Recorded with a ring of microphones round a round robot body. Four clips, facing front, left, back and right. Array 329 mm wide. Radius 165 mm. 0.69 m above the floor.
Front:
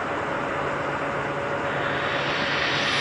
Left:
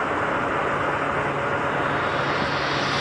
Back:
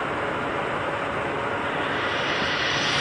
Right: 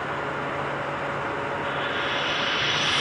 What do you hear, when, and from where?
1.6 s frying: 70° right, 10 m